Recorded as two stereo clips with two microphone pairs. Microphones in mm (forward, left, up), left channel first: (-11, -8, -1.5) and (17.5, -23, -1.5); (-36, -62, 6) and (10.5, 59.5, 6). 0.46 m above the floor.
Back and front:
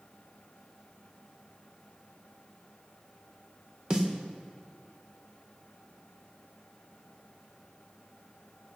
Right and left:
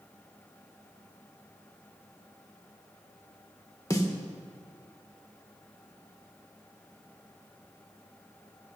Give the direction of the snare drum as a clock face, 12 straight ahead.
2 o'clock.